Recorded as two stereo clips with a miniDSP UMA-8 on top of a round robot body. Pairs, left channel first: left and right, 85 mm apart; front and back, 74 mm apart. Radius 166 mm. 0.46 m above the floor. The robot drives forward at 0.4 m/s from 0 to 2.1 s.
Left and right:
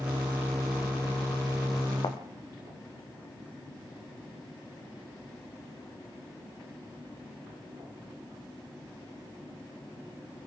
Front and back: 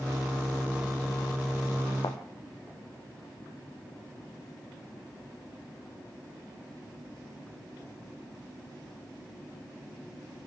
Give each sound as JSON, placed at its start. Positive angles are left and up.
{"t": 2.0, "sound": "a thud", "azimuth_deg": 45, "distance_m": 2.0}